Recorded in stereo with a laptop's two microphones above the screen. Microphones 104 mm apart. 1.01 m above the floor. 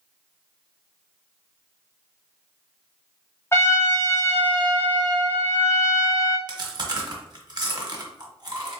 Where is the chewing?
45° right (ahead or behind), 1.1 m.